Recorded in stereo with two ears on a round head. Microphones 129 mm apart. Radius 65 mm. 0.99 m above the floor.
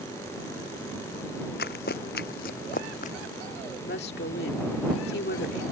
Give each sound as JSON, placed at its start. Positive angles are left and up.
{"t": 1.6, "sound": "running footsteps", "side_deg": 75}
{"t": 3.8, "sound": "a woman speaking", "side_deg": 80}